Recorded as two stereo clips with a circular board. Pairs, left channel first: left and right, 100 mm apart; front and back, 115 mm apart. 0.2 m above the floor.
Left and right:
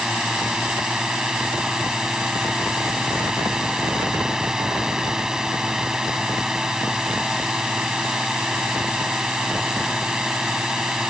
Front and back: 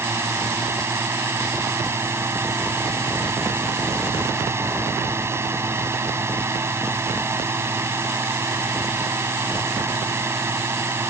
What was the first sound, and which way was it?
A drone, 165° right.